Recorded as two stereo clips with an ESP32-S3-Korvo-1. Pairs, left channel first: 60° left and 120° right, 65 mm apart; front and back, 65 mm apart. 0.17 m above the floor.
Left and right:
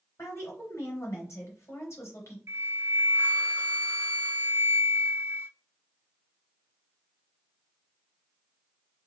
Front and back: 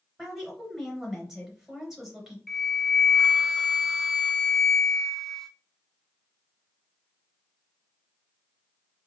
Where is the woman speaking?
100° left, 3 m.